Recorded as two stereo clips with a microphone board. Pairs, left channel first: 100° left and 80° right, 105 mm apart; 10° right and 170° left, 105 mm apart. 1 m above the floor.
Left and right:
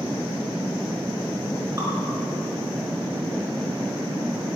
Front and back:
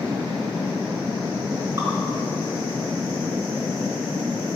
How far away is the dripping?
About 4.5 m.